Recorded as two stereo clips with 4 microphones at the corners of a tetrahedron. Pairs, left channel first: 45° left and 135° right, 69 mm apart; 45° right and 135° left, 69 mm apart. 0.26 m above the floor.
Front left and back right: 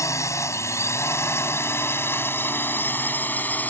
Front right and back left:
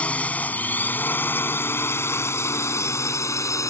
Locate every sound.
0.0 s a drone: 20° left; by 3.7 s 15° right